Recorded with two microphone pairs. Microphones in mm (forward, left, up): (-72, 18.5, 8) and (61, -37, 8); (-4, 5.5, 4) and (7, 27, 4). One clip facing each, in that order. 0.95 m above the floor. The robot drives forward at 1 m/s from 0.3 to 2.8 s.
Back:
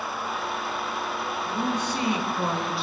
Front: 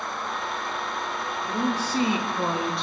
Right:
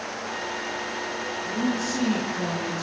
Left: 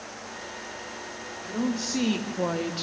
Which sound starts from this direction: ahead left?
A woman speaking, at 1.4 s.